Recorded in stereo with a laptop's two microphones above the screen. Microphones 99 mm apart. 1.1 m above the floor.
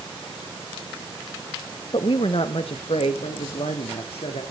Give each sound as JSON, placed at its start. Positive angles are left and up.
{"t": 1.9, "sound": "a woman speaking", "side_deg": 50, "distance_m": 0.9}